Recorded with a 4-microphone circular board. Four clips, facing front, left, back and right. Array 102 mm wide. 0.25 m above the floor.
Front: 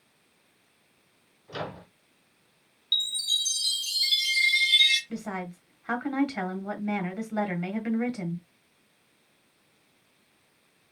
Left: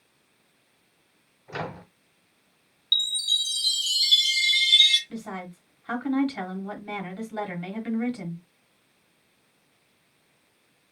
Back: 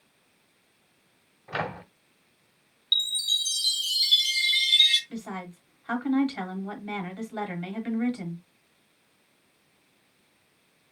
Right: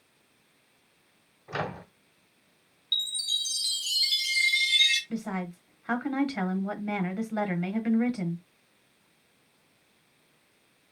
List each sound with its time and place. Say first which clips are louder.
1.5 s a microwave: right 1 dB, back 4 dB; 160° right, 1.5 m
2.9 s a chime: left 5 dB, back 1 dB; 55° right, 1.1 m
5.1 s a woman speaking: right 3 dB, front 2 dB; 40° right, 1.3 m